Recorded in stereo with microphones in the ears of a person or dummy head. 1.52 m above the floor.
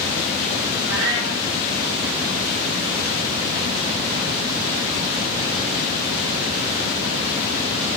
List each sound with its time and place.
0.8 s a cat meowing: 65° right (ahead or behind), 7 m